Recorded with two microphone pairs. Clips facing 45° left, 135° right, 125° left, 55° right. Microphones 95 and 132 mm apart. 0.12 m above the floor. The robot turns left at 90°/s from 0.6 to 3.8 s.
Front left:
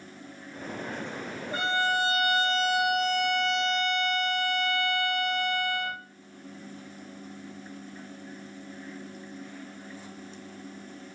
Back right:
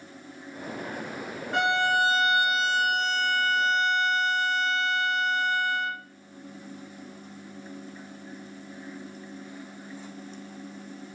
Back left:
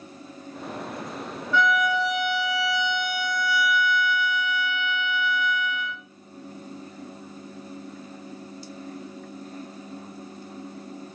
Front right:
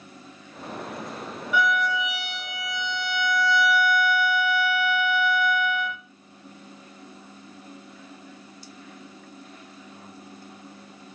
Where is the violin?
130° right, 0.9 m; by 6.0 s 25° left, 0.9 m.